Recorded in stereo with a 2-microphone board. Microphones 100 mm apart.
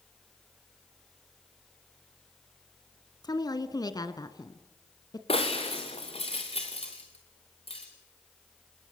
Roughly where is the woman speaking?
Left.